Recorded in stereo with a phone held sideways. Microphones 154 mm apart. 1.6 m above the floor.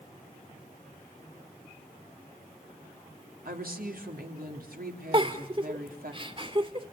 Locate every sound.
3.5 s a woman speaking: 75° right (ahead or behind), 3.5 m
5.1 s a giggle: 35° right (ahead or behind), 1.8 m